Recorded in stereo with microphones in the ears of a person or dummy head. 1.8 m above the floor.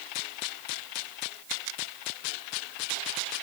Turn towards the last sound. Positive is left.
No sound to turn to.